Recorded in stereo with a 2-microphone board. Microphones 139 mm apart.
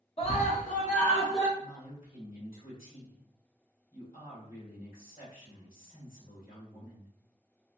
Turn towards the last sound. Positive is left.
turn(degrees=80)